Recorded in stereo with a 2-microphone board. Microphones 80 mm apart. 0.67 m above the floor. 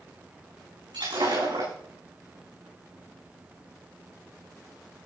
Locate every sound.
0.9 s breaking glass: 80° right, 9.5 m